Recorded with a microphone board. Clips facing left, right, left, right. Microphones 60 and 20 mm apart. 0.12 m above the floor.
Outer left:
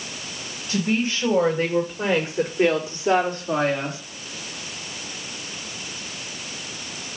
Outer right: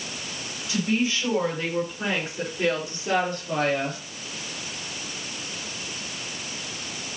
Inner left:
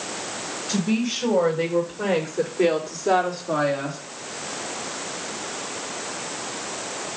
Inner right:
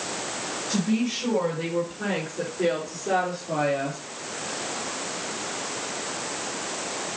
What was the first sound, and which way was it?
A woman speaking, 40° left (ahead or behind).